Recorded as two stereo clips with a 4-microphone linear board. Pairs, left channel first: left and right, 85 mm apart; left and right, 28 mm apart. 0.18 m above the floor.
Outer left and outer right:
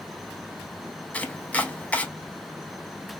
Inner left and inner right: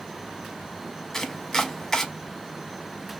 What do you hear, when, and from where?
1.1 s chopping: 15° left (ahead or behind), 0.6 m